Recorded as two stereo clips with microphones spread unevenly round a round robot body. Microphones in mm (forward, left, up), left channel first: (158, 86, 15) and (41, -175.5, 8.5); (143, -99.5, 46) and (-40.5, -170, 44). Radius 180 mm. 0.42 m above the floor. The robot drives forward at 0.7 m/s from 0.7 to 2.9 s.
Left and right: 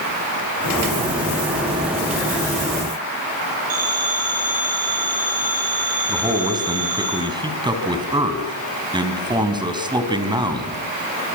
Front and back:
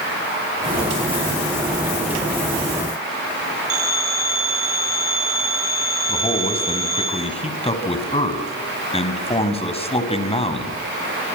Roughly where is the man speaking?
Ahead right.